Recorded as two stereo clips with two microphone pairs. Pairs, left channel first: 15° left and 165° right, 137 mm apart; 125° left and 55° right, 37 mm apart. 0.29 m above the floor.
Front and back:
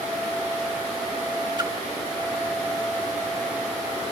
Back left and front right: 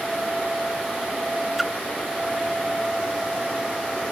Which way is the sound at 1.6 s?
145° right.